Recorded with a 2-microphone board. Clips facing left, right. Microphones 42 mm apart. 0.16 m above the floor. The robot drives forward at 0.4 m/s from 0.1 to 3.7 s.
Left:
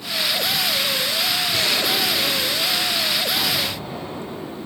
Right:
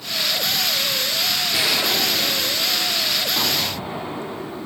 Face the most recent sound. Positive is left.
turn(degrees=-20)  # may be behind; listen again after turning